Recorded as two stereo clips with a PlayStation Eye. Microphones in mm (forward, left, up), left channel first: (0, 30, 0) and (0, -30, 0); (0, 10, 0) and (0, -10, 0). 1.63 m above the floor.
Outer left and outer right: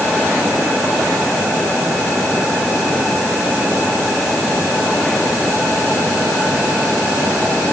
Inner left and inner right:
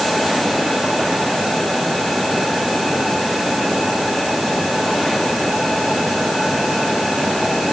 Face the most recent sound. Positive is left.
No sound to turn to.